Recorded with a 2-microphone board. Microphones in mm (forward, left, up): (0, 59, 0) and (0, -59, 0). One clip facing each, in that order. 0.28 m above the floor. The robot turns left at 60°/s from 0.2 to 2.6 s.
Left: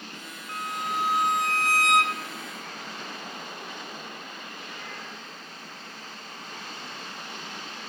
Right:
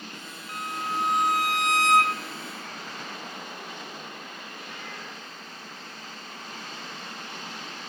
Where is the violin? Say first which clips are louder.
Even; 45° left, 0.7 m; by 2.2 s 60° right, 0.7 m.